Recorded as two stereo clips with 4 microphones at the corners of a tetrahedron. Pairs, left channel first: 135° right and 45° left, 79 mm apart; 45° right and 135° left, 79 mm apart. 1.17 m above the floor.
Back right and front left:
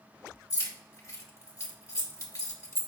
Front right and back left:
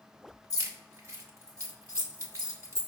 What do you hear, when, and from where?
0.5 s keys jangling: straight behind, 1.1 m